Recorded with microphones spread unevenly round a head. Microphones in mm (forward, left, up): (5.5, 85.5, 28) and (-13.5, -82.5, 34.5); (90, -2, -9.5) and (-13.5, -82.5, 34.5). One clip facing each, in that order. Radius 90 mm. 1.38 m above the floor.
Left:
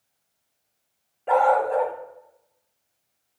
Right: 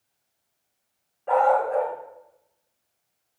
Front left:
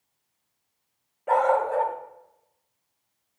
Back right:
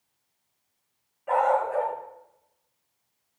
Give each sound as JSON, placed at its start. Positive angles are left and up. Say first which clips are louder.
{"t": 1.3, "sound": "a dog barking", "louder": "left 1 dB, front left 1 dB", "azimuth_deg": 75, "distance_m": 0.7}